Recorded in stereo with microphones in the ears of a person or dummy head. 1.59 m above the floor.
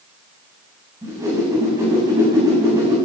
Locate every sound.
1.0 s a whoosh: 20° right (ahead or behind), 8.5 m